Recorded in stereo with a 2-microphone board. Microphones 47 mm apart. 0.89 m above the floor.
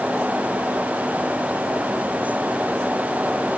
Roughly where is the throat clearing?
No throat clearing in this recording.